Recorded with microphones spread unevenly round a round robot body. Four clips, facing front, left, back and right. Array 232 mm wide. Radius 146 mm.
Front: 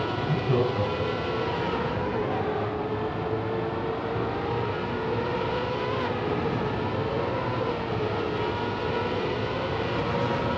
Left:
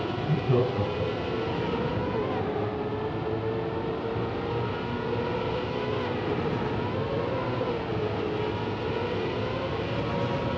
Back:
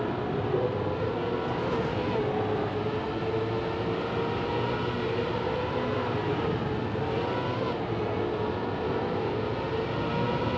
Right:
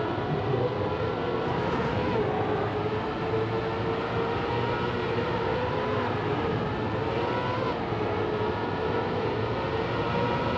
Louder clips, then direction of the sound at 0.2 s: Left 2 dB, front 5 dB; 70° left.